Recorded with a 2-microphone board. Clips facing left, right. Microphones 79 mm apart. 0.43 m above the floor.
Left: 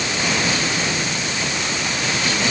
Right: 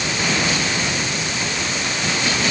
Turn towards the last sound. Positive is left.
No sound to turn to.